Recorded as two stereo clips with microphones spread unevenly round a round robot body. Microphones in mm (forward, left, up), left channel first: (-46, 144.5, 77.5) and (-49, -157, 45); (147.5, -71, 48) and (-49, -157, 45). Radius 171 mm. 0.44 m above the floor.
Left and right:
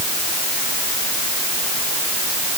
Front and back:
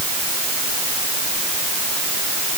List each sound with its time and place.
Only background noise.